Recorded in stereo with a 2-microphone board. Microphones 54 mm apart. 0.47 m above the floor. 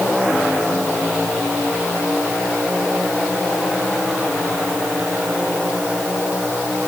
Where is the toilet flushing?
No toilet flushing in this recording.